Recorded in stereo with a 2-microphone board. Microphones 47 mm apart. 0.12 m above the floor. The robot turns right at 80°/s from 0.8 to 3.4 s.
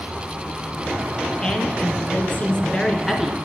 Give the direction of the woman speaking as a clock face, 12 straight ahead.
11 o'clock.